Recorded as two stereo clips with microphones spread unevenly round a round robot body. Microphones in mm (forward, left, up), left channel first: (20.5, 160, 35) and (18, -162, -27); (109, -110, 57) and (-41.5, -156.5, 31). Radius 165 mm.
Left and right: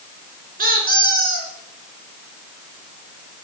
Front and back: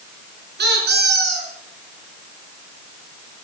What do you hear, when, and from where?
0.6 s a squeak: 160° right, 3 m